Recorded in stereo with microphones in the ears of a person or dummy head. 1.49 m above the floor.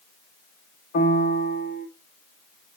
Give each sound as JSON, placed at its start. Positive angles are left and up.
{"t": 0.9, "sound": "a piano", "side_deg": 45, "distance_m": 1.8}